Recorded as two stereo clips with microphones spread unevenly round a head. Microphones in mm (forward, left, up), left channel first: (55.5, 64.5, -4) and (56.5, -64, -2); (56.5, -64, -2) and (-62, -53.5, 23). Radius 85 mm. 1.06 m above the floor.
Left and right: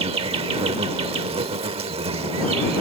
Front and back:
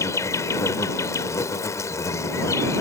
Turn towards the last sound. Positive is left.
turn(degrees=-75)